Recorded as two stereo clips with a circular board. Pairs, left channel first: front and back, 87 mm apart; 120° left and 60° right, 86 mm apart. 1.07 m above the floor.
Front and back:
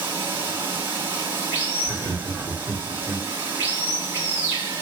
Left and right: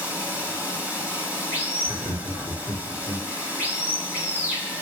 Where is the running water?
125° right, 1.1 m.